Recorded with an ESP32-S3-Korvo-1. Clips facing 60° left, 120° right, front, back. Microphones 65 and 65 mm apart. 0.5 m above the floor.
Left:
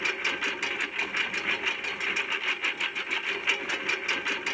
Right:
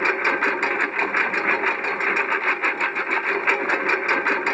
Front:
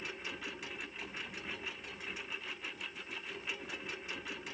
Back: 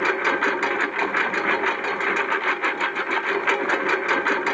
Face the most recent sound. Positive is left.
turn(degrees=-165)